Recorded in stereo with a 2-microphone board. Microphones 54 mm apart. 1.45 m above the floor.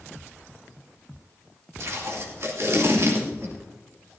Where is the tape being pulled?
60° right (ahead or behind), 2.5 m.